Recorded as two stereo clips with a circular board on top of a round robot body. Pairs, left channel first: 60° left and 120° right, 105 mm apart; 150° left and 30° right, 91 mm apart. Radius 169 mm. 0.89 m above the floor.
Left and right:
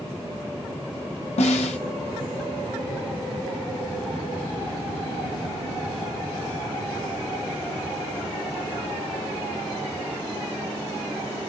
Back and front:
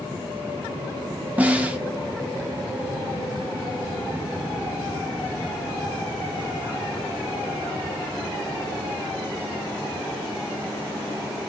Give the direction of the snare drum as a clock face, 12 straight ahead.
11 o'clock.